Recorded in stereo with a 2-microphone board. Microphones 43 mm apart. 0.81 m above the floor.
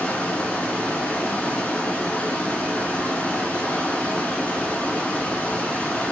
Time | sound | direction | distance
0.0 | running water | 30° left (ahead or behind) | 1.4 m